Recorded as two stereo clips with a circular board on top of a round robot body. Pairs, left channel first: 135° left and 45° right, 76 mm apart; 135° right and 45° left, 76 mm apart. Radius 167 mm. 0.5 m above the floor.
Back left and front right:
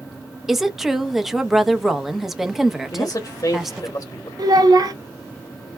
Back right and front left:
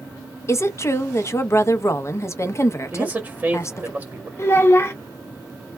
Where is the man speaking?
105° left, 1.1 m.